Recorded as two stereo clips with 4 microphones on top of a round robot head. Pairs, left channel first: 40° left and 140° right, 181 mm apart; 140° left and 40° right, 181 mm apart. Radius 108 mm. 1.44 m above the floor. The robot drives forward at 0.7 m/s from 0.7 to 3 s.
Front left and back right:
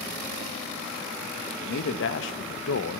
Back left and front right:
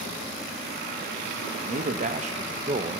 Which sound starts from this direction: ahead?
A man speaking, at 1.6 s.